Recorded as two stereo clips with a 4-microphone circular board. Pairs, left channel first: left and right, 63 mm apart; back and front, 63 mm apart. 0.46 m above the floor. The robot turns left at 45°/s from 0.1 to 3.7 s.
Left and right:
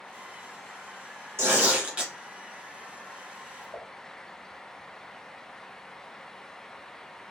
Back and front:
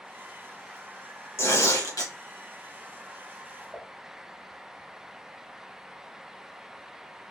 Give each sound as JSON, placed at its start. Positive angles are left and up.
{"t": 1.4, "sound": "tearing paper", "azimuth_deg": -140, "distance_m": 1.7}
{"t": 3.7, "sound": "dishes clattering", "azimuth_deg": 105, "distance_m": 1.6}